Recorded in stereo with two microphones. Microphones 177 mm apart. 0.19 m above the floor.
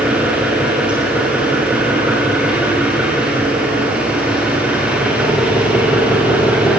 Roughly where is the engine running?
Centre.